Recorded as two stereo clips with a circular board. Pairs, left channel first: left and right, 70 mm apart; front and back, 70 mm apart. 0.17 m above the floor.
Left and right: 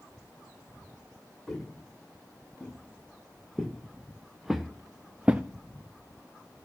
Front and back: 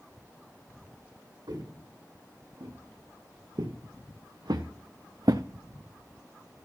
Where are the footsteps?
175° left, 3.5 m; by 5.5 s 155° right, 0.5 m.